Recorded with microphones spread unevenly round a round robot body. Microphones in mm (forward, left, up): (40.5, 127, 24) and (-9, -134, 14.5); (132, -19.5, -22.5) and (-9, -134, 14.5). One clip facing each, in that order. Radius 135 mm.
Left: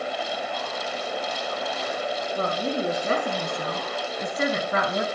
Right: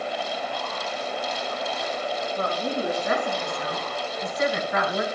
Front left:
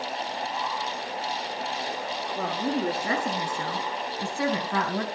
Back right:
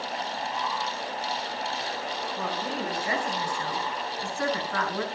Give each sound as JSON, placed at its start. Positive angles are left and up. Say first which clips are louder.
{"t": 2.4, "sound": "a woman speaking", "louder": "left 2 dB, front left 6 dB", "azimuth_deg": 15, "distance_m": 6.5}